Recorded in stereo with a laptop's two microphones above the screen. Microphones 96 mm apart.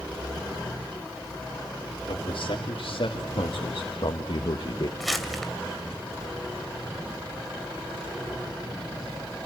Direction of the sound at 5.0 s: Centre (ahead or behind).